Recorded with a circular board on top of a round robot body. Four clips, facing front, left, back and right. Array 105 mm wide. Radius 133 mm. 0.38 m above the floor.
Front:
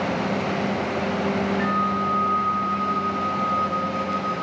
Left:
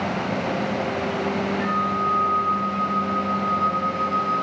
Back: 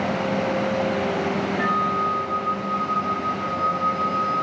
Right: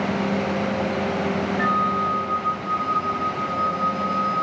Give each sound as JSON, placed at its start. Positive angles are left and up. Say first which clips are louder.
{"t": 1.6, "sound": "a flute", "louder": "right 4 dB, back 1 dB", "azimuth_deg": -110, "distance_m": 1.9}